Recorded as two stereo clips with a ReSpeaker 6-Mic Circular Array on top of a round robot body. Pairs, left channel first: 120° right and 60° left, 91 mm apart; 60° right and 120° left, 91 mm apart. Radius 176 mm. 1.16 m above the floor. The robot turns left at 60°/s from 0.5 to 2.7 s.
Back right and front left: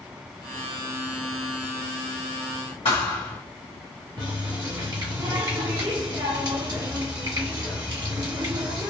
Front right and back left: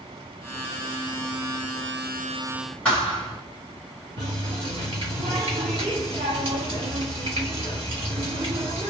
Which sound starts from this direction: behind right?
A thud, at 2.9 s.